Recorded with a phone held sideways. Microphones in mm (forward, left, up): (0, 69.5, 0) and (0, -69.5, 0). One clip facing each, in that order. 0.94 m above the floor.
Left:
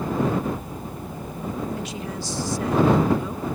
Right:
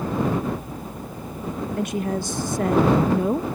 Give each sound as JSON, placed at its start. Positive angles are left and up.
{"t": 1.8, "sound": "a woman speaking", "side_deg": -55}